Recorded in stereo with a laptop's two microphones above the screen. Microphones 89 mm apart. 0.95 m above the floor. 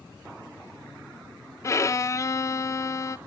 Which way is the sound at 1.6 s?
35° left (ahead or behind).